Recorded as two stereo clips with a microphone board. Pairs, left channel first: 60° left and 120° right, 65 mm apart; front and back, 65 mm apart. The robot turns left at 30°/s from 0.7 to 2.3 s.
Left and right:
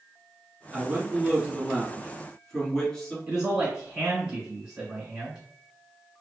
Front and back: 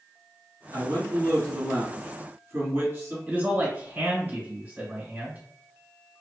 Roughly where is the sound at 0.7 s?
Behind.